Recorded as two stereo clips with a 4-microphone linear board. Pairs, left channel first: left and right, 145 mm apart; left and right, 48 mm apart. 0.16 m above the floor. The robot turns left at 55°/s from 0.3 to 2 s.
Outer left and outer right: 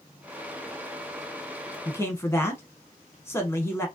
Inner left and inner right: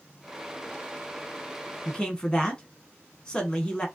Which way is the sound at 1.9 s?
20° left (ahead or behind).